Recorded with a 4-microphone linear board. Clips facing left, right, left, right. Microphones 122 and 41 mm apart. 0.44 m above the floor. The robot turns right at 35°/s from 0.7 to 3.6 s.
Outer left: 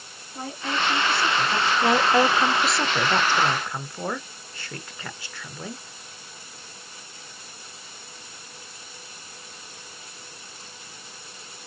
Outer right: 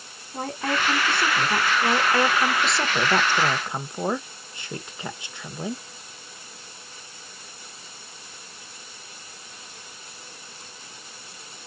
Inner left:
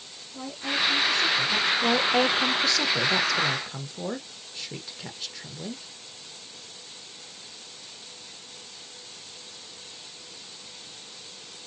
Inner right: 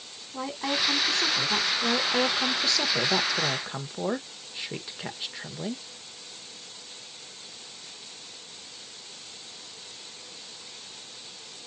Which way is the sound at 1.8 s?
20° left (ahead or behind).